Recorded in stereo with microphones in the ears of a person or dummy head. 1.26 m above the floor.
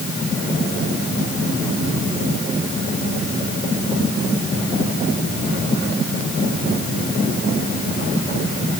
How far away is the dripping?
No dripping in this recording.